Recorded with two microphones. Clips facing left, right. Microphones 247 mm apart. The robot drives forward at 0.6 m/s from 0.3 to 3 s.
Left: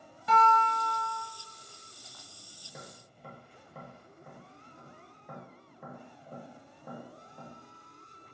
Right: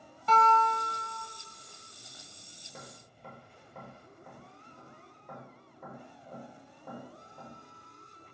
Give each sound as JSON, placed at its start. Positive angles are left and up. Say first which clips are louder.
{"t": 0.3, "sound": "a guitar", "louder": "right 1 dB", "side_deg": 10, "distance_m": 0.9}
{"t": 2.6, "sound": "tapping", "louder": "left 1 dB", "side_deg": 5, "distance_m": 0.9}